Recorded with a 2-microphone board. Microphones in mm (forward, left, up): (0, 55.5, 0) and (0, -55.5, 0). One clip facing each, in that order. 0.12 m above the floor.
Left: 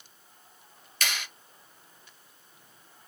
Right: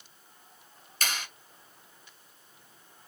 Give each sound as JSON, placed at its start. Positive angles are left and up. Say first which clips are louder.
{"t": 1.0, "sound": "a clap", "louder": "even", "side_deg": -35, "distance_m": 1.8}